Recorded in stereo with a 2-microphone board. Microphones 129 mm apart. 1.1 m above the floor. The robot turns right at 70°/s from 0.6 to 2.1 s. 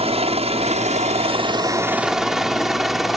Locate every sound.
0.0 s a helicopter: 55° right (ahead or behind); by 3.2 s centre (ahead or behind)